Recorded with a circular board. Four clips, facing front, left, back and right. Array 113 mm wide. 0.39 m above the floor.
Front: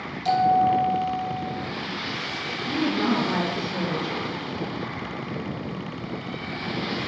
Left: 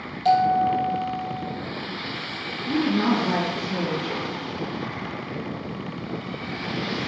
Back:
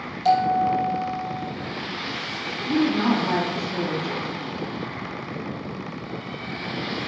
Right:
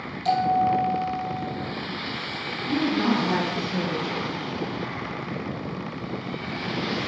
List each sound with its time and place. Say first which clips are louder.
0.2 s a bell: left 2 dB, even; 135° left, 2.5 m
2.7 s a woman speaking: left 1 dB, back 3 dB; 150° left, 3 m